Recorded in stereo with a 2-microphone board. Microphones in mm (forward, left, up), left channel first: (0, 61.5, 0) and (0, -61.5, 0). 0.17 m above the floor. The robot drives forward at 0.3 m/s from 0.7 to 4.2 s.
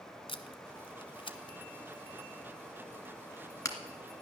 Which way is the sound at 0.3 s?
45° left (ahead or behind).